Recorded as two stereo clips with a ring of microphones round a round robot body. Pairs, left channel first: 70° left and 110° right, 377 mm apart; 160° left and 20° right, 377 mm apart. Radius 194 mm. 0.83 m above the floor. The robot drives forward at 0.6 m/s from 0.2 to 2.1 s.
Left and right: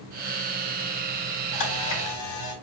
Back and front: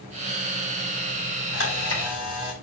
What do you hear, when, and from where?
1.5 s a camera shutter: 100° left, 5 m; by 2.5 s 105° left, 5.5 m